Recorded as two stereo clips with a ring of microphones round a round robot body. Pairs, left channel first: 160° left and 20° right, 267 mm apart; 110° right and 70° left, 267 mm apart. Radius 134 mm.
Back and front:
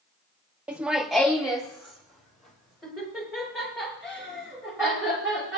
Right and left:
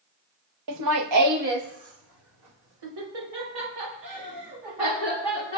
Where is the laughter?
65° left, 0.8 m; by 5.6 s 70° left, 8 m.